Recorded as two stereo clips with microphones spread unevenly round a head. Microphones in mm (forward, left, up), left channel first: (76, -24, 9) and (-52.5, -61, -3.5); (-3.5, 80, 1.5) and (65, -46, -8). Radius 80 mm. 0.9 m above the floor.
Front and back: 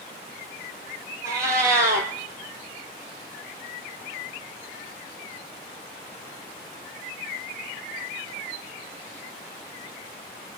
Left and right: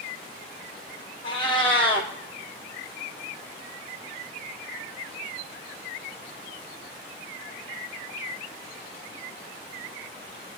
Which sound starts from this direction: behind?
A cat meowing, at 1.2 s.